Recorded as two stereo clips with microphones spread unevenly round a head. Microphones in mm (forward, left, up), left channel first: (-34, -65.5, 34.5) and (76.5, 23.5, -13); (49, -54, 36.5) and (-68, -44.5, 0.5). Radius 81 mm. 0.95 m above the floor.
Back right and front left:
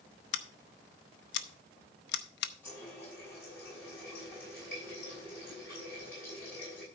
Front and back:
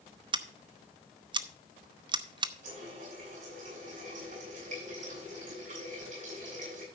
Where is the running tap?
140° left, 5.5 m.